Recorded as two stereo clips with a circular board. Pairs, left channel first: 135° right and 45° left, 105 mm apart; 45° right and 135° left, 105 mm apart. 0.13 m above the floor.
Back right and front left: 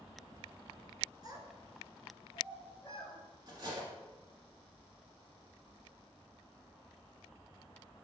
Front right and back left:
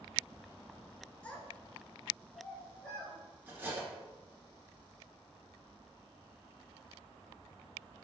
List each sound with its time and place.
1.2 s a child speaking: 25° left, 1.0 m; by 3.2 s 130° right, 1.2 m
3.5 s cutlery clinking: 70° left, 1.1 m